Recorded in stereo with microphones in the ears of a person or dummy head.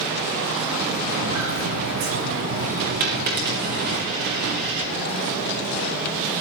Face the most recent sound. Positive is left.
turn(degrees=-55)  # may be behind; listen again after turning